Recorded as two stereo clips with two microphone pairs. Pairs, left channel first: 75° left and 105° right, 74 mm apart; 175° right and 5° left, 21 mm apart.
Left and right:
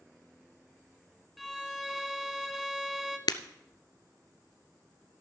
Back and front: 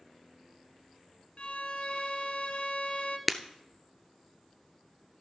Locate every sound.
1.4 s a violin: 165° left, 1.1 m
3.3 s breaking glass: 90° left, 0.6 m